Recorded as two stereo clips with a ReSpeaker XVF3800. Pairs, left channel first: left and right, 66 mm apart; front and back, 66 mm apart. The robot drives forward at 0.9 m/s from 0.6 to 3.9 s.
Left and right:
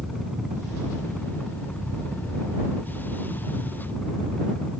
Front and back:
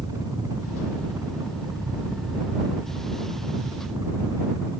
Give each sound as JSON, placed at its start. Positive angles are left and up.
{"t": 0.0, "sound": "a helicopter", "azimuth_deg": -175}